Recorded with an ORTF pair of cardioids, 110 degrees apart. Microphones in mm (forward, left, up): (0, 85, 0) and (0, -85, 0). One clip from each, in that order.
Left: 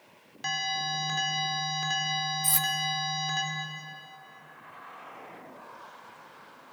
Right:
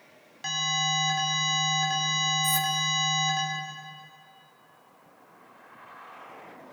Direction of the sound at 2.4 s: 30° left.